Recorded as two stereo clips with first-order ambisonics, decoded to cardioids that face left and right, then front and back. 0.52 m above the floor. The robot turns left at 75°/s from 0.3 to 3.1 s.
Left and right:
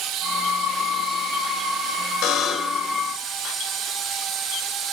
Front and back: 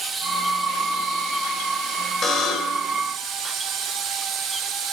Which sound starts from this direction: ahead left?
A buzzer, at 2.2 s.